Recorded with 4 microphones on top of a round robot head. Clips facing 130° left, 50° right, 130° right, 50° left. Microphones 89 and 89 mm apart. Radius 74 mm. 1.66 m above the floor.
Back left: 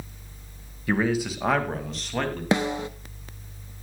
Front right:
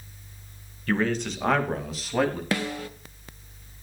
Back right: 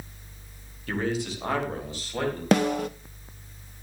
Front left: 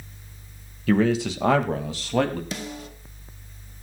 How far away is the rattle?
I don't hear a rattle.